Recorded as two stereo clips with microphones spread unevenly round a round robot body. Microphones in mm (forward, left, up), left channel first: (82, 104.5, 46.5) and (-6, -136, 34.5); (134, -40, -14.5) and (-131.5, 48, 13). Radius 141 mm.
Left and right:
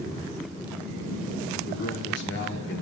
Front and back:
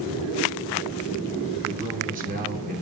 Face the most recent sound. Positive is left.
turn(degrees=105)